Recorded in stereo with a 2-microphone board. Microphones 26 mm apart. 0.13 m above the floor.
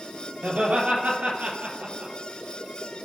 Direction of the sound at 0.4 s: 65° right (ahead or behind).